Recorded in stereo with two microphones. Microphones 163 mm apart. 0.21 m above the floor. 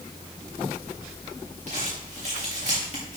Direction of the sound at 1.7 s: 50° right (ahead or behind).